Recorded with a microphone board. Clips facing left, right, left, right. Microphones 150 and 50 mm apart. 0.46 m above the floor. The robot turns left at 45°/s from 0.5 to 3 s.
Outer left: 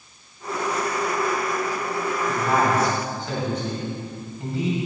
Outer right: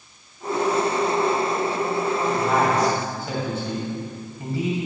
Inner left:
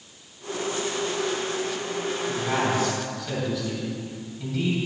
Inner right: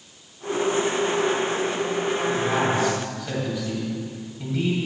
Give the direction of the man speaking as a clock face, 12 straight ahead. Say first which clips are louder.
Outer left 1 dB, even; 12 o'clock.